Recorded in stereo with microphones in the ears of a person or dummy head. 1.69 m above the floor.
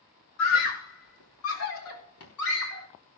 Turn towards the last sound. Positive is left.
turn(degrees=80)